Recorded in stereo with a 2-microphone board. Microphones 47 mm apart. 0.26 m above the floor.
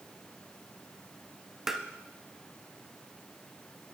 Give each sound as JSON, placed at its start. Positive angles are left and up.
{"t": 1.7, "sound": "tapping", "side_deg": -5, "distance_m": 0.6}